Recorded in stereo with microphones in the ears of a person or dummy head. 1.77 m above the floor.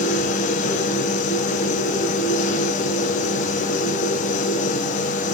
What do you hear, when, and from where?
0.0 s a machine running: 45° left (ahead or behind), 1.0 m